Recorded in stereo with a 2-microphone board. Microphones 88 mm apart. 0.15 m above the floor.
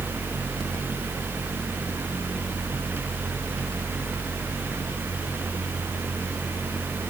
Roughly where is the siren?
I don't hear a siren.